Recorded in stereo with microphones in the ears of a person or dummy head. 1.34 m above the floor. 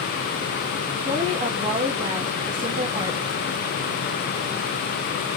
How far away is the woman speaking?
About 1.8 m.